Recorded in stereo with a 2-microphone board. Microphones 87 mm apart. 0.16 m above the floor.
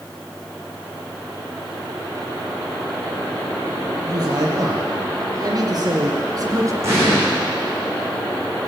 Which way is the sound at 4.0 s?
45° right (ahead or behind).